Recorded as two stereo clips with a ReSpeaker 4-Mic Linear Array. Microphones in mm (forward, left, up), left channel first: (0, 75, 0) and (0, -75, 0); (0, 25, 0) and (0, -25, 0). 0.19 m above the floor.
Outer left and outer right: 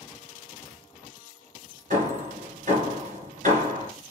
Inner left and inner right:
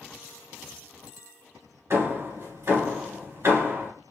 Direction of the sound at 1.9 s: 60° right (ahead or behind).